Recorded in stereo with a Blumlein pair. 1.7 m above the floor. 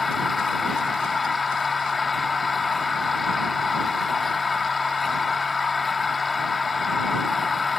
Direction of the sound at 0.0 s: 15° left.